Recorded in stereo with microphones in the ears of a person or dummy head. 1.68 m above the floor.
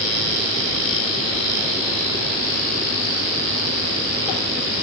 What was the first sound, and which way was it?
Only background noise.